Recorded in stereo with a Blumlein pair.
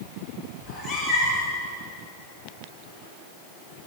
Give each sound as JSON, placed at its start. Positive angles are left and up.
{"t": 0.6, "sound": "a cat meowing", "azimuth_deg": 20, "distance_m": 2.5}